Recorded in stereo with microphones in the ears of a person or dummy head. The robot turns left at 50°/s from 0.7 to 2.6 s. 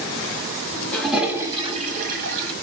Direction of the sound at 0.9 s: 5° left.